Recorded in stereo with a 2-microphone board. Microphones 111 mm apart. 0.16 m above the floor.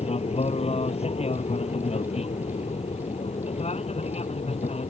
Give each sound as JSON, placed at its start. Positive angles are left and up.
{"t": 0.0, "sound": "an aircraft", "side_deg": 70}